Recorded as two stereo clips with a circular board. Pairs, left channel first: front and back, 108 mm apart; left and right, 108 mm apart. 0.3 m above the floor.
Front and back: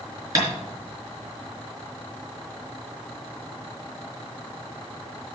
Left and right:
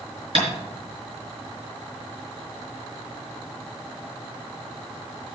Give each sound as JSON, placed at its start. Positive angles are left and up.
{"t": 0.3, "sound": "tapping", "azimuth_deg": -125, "distance_m": 4.5}